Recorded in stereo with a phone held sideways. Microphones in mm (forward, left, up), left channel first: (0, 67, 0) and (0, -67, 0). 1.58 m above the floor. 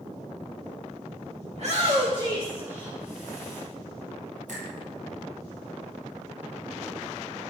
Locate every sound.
1.5 s a shout: 60° right (ahead or behind), 2 m; by 3.6 s 5° left (ahead or behind), 3 m
4.5 s a finger snap: 70° right (ahead or behind), 7 m